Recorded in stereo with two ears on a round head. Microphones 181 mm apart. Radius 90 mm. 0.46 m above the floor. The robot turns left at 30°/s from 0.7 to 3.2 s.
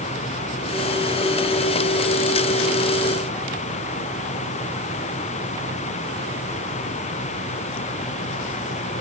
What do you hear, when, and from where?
Only background noise.